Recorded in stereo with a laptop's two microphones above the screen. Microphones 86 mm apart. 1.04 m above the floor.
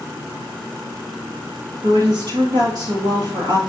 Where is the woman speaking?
55° right (ahead or behind), 1.9 m.